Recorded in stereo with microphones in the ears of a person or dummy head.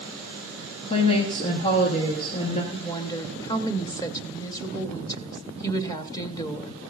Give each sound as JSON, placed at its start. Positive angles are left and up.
{"t": 0.9, "sound": "a woman speaking", "side_deg": 35, "distance_m": 1.3}
{"t": 2.7, "sound": "a woman speaking", "side_deg": 20, "distance_m": 0.9}